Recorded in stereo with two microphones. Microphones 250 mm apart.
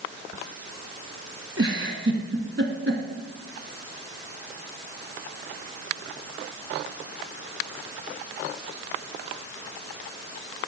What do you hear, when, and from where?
1.6 s a giggle: 50° right (ahead or behind), 1.0 m